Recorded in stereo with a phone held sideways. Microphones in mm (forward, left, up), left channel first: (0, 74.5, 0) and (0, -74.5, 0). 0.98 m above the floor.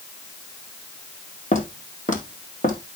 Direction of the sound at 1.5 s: 55° left (ahead or behind).